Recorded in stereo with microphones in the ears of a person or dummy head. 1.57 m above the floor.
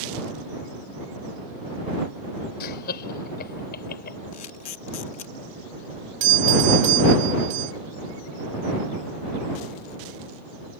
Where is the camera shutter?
40° left (ahead or behind).